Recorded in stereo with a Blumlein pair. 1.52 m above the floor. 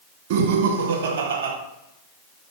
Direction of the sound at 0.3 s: 55° right.